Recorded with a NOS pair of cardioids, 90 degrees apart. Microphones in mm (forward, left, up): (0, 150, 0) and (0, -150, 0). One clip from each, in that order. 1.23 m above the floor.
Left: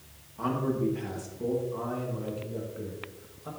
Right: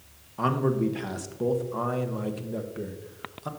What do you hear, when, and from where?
0.4 s a man speaking: 55° right, 1.3 m